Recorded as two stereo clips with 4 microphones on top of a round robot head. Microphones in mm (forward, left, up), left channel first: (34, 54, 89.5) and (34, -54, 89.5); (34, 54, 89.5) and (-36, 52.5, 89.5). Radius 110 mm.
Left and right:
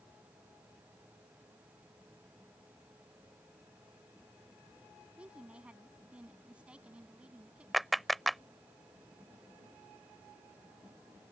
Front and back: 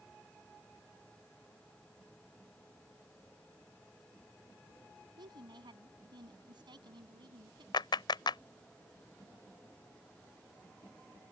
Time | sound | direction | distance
5.2 | a woman speaking | 170° right | ?
7.7 | a clap | straight ahead | ?